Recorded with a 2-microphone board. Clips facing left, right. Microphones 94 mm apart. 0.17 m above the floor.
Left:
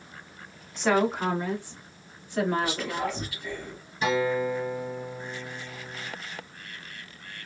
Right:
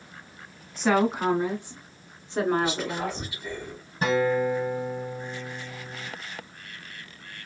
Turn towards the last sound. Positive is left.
turn(degrees=-40)  # may be behind; listen again after turning